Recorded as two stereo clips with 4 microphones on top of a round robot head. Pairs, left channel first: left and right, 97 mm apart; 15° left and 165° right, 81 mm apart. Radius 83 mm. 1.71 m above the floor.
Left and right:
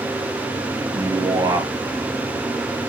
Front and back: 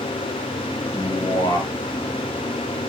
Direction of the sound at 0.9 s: 40° right.